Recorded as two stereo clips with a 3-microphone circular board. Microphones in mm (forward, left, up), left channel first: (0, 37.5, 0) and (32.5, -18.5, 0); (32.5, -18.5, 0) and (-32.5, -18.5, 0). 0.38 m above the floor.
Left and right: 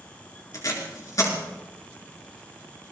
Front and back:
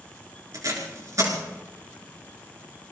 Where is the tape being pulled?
150° left, 4 m.